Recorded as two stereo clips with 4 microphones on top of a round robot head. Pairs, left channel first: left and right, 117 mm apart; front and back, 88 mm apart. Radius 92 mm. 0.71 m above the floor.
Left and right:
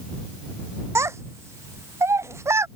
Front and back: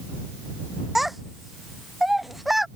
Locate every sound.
0.9 s a child speaking: 95° right